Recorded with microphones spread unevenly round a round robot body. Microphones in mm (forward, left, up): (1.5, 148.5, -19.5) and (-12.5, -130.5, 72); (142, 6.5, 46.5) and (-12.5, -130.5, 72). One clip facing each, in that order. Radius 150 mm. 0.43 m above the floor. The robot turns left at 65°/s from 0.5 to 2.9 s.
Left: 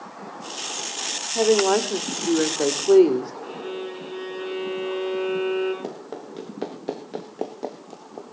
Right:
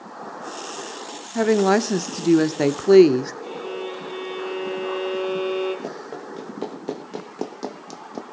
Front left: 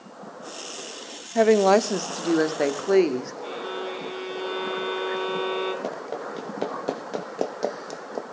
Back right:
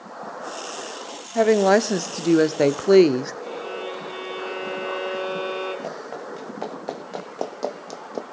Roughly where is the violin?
Ahead.